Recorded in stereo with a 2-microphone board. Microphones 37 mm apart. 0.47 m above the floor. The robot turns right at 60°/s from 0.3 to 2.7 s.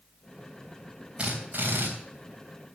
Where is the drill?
145° right, 3.5 m; by 1.9 s 105° right, 3.5 m.